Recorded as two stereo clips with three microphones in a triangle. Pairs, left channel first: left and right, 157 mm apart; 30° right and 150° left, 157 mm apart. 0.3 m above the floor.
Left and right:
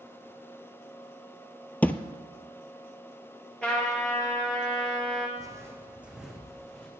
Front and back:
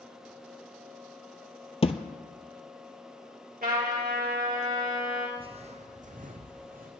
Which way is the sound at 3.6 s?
175° left.